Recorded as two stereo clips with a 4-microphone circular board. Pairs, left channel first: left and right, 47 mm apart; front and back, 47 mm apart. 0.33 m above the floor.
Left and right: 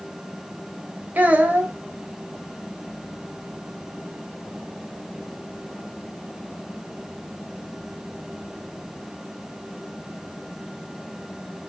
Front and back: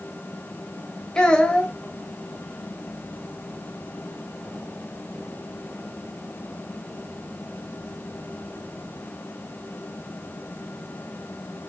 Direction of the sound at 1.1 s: 60° right.